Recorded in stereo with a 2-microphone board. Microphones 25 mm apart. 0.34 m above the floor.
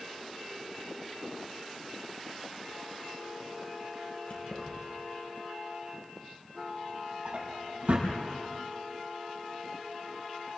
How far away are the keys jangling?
About 7 m.